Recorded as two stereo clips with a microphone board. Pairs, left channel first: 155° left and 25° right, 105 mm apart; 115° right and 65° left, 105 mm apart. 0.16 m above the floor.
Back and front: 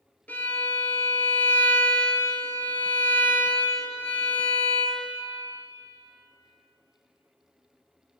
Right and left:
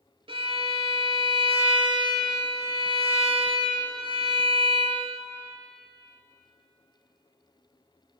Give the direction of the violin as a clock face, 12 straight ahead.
9 o'clock.